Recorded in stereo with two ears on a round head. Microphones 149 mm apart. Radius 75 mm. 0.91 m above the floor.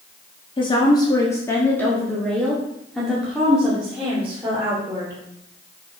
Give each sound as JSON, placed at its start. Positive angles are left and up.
{"t": 0.6, "sound": "a woman speaking", "side_deg": 30, "distance_m": 1.5}